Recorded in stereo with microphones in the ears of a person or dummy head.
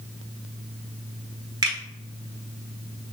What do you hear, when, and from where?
1.6 s a finger snap: 20° right (ahead or behind), 1.0 m